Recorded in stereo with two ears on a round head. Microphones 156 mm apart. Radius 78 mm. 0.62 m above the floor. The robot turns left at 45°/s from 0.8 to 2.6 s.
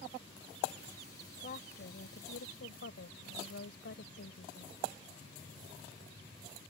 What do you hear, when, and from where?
1.4 s a woman speaking: 130° left; by 4.7 s 80° left